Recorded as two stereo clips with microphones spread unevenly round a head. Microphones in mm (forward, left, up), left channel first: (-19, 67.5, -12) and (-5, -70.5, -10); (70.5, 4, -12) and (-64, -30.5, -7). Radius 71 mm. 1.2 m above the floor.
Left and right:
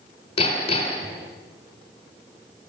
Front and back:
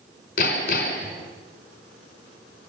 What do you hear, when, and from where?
0.4 s hammering: 45° left, 4.5 m